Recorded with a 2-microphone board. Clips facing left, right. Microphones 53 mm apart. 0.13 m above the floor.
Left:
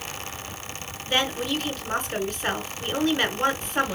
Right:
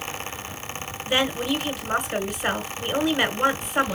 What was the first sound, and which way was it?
A woman speaking, 10° right (ahead or behind).